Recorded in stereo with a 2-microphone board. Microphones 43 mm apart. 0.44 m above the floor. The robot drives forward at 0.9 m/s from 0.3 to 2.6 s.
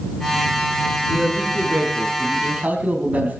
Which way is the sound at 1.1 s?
30° right (ahead or behind).